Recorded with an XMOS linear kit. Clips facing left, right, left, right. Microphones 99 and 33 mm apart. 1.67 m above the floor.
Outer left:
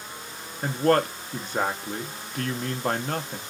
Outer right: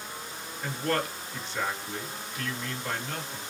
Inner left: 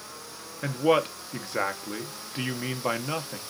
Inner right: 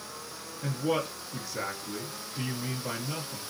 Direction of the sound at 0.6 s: 50° left (ahead or behind).